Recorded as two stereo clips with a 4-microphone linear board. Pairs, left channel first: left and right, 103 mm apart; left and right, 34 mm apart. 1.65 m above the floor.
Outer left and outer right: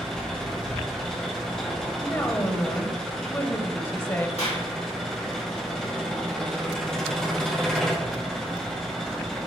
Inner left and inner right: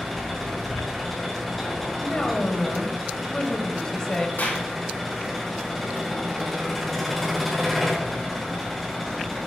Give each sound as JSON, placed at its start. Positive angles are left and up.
{"t": 0.0, "sound": "an engine running", "side_deg": 5, "distance_m": 3.5}
{"t": 2.0, "sound": "a woman speaking", "side_deg": 25, "distance_m": 1.2}
{"t": 4.4, "sound": "a clap", "side_deg": 85, "distance_m": 3.5}